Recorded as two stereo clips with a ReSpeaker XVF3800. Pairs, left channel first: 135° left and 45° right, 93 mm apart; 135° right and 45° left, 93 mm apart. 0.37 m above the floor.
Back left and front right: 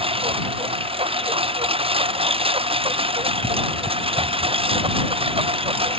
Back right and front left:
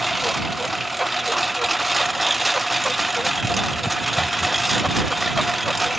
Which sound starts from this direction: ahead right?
A lawn mower, at 0.0 s.